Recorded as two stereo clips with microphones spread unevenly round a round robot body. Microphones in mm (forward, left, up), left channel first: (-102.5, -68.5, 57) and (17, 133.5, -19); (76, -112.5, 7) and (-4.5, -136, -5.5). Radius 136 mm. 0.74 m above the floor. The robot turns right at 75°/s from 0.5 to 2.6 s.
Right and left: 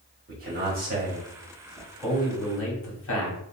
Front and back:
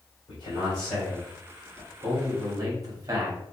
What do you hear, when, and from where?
0.3 s a man speaking: 45° left, 1.4 m; by 3.4 s 155° right, 1.4 m